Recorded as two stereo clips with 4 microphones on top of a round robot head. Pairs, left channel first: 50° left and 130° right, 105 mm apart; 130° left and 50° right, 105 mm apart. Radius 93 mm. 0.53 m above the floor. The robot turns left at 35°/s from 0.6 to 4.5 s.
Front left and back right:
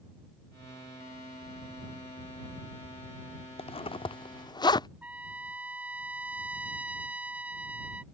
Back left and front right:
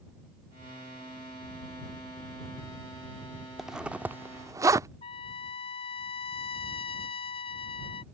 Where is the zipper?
40° left; by 4.9 s 5° left.